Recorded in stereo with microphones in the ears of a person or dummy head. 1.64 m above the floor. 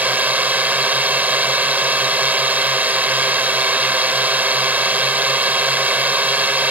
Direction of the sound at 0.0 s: 15° right (ahead or behind).